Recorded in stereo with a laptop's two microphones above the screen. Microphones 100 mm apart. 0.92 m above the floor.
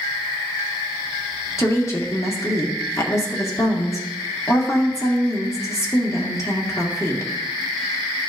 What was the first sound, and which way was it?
A woman speaking, 30° left (ahead or behind).